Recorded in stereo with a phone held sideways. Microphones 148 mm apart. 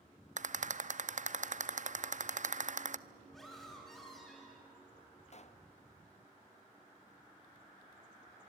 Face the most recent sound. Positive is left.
turn(degrees=50)  # may be behind; listen again after turning